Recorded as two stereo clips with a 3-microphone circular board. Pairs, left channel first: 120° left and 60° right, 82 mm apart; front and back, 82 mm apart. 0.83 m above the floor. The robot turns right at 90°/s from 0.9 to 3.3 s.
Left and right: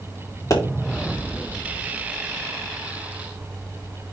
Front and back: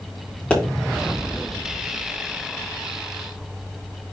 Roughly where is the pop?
Left.